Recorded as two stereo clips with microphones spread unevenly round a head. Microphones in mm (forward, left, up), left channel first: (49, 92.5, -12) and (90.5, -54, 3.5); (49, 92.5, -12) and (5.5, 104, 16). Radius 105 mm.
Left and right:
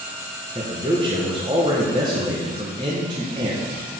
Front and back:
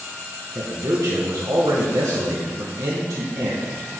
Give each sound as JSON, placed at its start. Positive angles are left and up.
{"t": 0.6, "sound": "a man speaking", "azimuth_deg": -145, "distance_m": 1.2}